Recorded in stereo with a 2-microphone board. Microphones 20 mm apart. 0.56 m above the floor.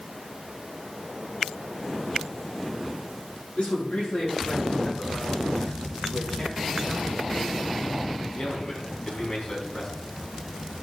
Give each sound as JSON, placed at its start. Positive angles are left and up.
{"t": 3.5, "sound": "a man speaking", "side_deg": 70, "distance_m": 8.5}